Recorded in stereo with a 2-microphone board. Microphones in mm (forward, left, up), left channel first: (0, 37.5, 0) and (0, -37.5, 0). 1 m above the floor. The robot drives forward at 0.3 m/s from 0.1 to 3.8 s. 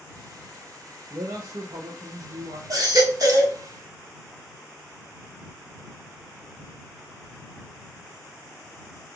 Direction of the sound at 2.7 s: 55° right (ahead or behind).